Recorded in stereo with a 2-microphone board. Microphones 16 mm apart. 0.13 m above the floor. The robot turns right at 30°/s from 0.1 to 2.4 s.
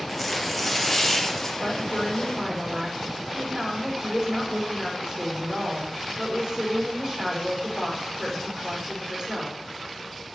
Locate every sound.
0.1 s tearing paper: 10° right, 2 m; by 1.5 s 35° left, 2 m
1.6 s a woman speaking: 50° right (ahead or behind), 6.5 m; by 9.6 s 30° right (ahead or behind), 6.5 m